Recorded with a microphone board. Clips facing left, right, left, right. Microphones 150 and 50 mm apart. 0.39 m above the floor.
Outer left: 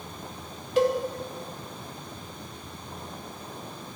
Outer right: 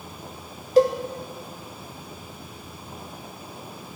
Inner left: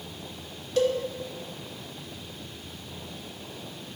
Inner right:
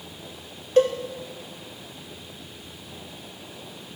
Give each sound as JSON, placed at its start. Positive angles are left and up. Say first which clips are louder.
{"t": 0.8, "sound": "a cowbell", "louder": "outer right 5 dB, inner right 5 dB", "side_deg": -35, "distance_m": 0.7}